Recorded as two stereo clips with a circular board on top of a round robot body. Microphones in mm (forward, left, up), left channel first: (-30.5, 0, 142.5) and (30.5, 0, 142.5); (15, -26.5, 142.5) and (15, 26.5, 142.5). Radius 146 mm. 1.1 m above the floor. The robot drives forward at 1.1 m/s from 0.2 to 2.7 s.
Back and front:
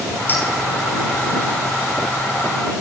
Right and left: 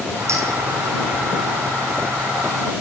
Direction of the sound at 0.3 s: 120° left.